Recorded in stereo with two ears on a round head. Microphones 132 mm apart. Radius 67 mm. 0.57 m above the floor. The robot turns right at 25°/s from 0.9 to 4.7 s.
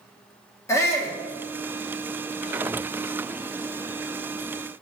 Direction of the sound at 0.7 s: 20° left (ahead or behind).